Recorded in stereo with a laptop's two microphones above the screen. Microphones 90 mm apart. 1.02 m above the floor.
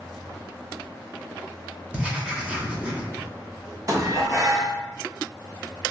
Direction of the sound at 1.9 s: 15° right (ahead or behind).